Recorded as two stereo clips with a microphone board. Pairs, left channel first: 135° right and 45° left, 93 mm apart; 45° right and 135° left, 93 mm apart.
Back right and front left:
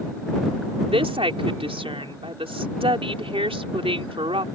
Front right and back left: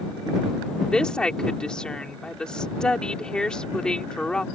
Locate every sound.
0.8 s a woman speaking: 35° left